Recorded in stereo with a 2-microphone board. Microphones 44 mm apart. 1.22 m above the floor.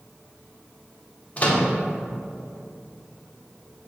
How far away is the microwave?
About 0.9 m.